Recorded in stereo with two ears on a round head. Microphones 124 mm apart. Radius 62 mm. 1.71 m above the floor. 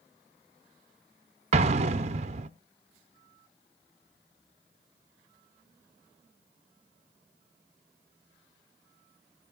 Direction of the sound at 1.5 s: 50° right (ahead or behind).